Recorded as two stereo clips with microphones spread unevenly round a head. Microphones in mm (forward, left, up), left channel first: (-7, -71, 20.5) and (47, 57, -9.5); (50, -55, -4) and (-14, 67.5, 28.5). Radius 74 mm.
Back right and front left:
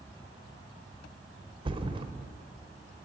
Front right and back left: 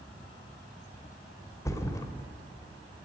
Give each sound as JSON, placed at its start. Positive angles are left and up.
{"t": 1.6, "sound": "a thud", "azimuth_deg": 10, "distance_m": 2.0}